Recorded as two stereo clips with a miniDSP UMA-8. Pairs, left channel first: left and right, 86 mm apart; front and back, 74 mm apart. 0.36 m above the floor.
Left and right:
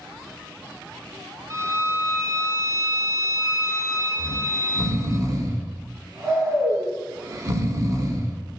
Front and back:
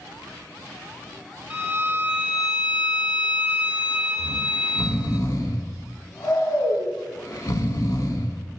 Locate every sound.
1.5 s a violin: 115° right, 0.5 m
4.2 s snoring: 40° right, 0.6 m